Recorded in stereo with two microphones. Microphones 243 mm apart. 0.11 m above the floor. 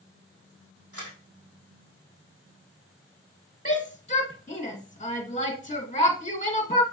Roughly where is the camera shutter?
Right.